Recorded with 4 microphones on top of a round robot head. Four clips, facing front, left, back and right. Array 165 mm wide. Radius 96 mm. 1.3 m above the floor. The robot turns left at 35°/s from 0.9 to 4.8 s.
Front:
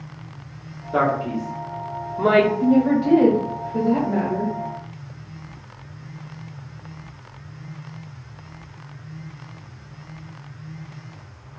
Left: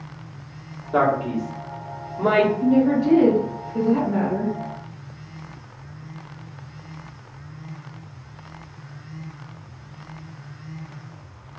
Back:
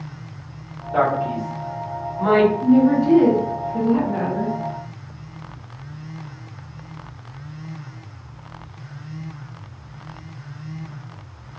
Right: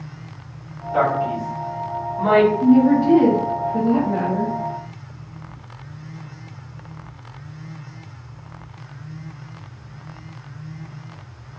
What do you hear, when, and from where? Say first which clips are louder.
0.9 s a man speaking: right 1 dB, back 1 dB; 50° left, 1.4 m; by 2.5 s 5° right, 1.4 m
2.6 s a woman speaking: right 4 dB, back 2 dB; 5° left, 1.6 m; by 4.6 s 65° right, 1.6 m